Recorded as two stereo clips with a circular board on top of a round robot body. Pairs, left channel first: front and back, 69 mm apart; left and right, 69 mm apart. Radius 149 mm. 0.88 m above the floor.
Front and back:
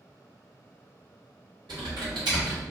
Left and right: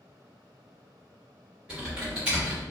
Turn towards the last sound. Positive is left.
turn(degrees=-170)